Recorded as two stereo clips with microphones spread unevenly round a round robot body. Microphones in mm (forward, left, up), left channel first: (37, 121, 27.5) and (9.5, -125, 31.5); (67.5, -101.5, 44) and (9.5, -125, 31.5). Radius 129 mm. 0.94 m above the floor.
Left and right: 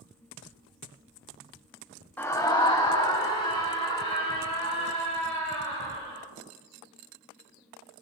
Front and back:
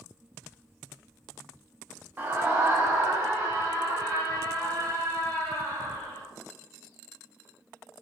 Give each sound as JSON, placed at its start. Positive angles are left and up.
{"t": 2.2, "sound": "a scream", "azimuth_deg": 165, "distance_m": 0.8}